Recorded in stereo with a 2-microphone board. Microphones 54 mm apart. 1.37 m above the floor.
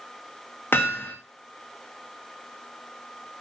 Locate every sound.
0.7 s hammering: 50° left (ahead or behind), 2 m